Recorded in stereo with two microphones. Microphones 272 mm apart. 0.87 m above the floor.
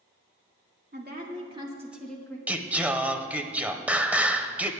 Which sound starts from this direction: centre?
Singing, at 2.5 s.